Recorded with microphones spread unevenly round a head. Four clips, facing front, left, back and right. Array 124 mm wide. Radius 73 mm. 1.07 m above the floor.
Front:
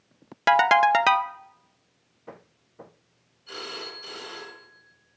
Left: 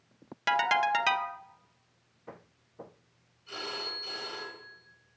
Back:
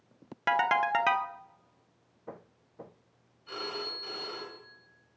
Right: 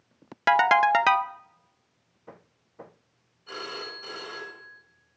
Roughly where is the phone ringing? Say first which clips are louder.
Right 2 dB, even; right.